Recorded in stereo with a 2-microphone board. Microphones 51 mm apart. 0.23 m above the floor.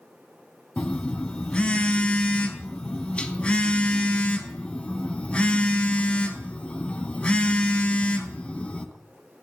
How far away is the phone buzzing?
About 0.5 m.